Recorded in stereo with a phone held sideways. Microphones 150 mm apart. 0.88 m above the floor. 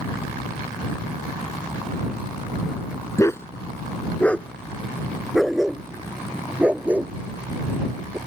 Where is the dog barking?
20° left (ahead or behind); by 8.2 s 15° right (ahead or behind).